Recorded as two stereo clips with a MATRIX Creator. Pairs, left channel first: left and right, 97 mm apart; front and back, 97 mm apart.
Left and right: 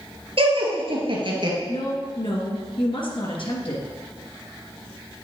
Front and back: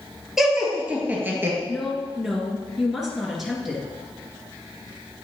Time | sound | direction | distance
0.4 | laughter | 95° right | 2.5 m
1.7 | a woman speaking | 90° left | 2.0 m